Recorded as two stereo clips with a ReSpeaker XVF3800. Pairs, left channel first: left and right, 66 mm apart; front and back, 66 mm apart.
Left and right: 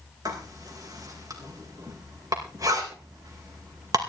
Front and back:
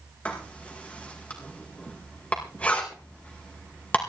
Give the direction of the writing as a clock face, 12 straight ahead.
2 o'clock.